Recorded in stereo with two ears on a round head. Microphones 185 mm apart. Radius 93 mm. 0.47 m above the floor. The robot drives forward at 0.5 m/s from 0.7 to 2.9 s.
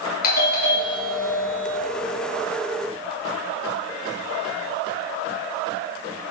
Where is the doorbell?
50° left (ahead or behind), 2.5 m; by 1.8 s 45° left (ahead or behind), 3 m.